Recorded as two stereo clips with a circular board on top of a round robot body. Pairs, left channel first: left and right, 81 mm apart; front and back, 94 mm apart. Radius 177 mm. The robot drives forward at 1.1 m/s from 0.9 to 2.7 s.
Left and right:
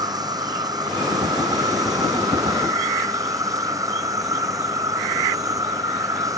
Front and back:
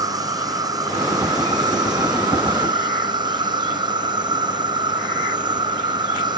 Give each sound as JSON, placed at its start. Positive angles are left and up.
{"t": 0.0, "sound": "an insect", "azimuth_deg": -130}